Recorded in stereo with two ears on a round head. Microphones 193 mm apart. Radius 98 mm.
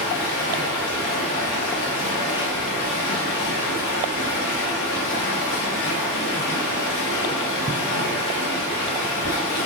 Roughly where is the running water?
Left.